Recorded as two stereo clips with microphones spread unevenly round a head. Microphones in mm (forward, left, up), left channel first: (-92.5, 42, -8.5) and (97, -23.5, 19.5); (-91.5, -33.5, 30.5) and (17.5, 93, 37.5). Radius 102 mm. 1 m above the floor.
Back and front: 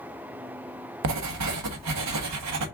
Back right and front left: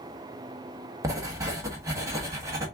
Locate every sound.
1.0 s writing: 25° right, 1.2 m